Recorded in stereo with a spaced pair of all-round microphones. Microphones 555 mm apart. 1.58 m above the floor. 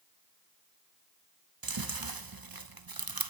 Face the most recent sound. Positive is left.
turn(degrees=-40)  # may be behind; listen again after turning